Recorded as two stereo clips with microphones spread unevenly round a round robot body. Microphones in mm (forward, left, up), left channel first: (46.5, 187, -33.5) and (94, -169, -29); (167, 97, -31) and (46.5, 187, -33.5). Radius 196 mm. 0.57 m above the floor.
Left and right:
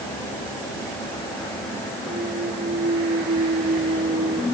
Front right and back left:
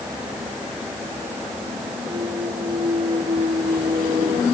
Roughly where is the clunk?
Behind right.